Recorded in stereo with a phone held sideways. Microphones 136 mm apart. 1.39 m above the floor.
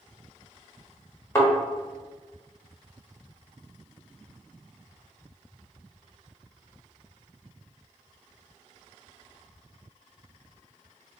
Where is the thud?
20° left (ahead or behind), 1.1 m.